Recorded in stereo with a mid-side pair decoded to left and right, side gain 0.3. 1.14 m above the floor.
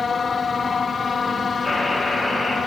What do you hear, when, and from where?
1.6 s a buzzer: 30° left, 4.5 m